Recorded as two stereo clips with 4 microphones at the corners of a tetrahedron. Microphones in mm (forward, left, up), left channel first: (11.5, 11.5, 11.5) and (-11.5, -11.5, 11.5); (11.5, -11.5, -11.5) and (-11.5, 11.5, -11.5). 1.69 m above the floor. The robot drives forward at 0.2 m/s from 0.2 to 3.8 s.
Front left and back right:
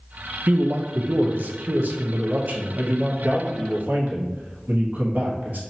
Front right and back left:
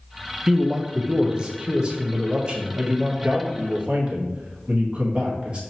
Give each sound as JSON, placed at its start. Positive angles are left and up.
{"t": 0.5, "sound": "a man speaking", "azimuth_deg": -150, "distance_m": 0.5}